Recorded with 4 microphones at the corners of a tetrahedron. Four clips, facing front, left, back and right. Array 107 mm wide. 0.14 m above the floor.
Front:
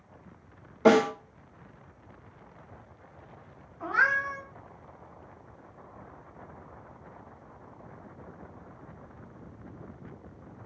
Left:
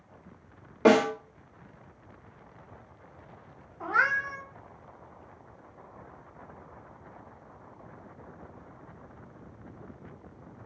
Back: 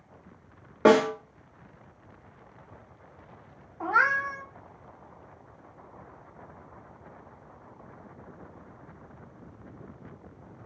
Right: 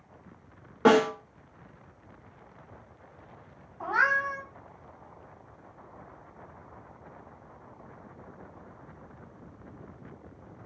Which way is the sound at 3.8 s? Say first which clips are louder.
Right 1 dB, back 2 dB; 160° right.